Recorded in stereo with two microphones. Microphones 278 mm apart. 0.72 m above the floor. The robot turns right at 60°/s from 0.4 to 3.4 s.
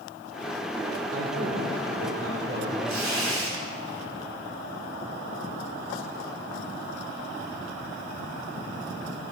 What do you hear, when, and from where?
1.1 s a man speaking: 115° right, 2.5 m; by 2.8 s 15° right, 2.5 m
2.9 s tearing paper: 90° right, 4 m; by 3.5 s 60° right, 4 m